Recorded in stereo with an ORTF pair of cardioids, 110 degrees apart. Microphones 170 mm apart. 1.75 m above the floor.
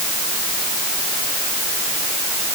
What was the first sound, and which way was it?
Only background noise.